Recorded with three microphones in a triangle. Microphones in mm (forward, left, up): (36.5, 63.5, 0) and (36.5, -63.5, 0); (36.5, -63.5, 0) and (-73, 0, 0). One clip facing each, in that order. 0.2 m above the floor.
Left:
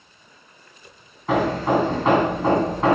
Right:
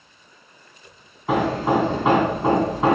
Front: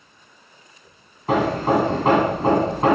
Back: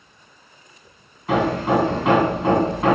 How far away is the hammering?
About 1.2 m.